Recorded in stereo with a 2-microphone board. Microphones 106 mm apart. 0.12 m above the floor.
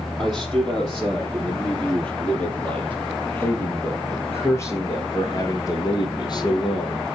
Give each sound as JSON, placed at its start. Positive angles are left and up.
{"t": 0.2, "sound": "a man speaking", "side_deg": 5, "distance_m": 4.5}